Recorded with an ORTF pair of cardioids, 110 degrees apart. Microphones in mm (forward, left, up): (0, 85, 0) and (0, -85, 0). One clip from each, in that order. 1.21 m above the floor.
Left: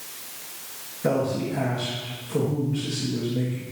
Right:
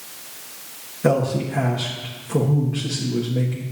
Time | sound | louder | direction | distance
1.0 | a man speaking | right 4 dB | 30° right | 1.9 m